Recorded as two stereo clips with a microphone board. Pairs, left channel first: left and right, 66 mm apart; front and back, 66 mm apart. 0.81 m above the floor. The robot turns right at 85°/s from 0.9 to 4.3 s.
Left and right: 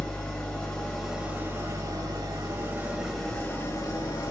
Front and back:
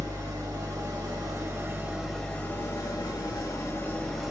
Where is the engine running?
165° left, 1.5 m; by 4.3 s 95° left, 1.5 m.